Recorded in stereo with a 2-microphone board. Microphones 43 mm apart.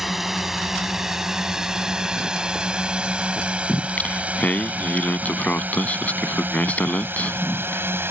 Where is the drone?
5° right (ahead or behind); by 8.1 s 60° right (ahead or behind).